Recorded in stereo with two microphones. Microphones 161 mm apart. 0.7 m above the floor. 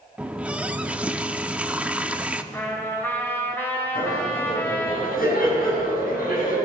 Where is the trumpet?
15° left (ahead or behind), 3 m.